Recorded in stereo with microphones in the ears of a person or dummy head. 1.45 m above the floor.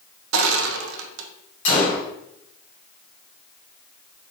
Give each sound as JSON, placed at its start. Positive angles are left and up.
{"t": 0.3, "sound": "crushing", "side_deg": -75, "distance_m": 0.6}
{"t": 1.6, "sound": "a gunshot", "side_deg": 50, "distance_m": 1.7}